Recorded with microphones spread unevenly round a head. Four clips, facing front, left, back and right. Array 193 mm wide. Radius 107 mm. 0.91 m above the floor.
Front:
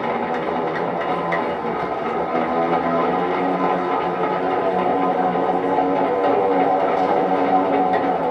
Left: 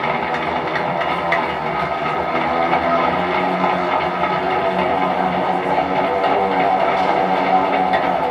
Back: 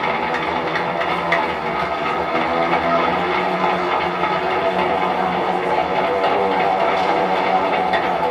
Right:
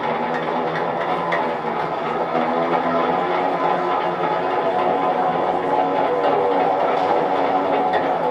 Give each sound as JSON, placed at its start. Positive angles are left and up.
{"t": 0.0, "sound": "a machine running", "azimuth_deg": 125, "distance_m": 1.0}